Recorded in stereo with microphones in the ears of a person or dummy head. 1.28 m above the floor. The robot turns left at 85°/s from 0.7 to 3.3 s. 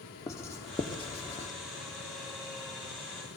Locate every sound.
0.3 s writing: 15° left (ahead or behind), 0.9 m; by 1.5 s 30° left (ahead or behind), 0.9 m